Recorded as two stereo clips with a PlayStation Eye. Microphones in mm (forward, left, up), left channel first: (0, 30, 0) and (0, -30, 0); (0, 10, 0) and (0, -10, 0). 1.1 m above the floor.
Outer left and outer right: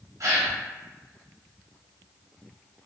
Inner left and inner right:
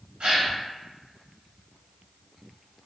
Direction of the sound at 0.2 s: 65° right (ahead or behind).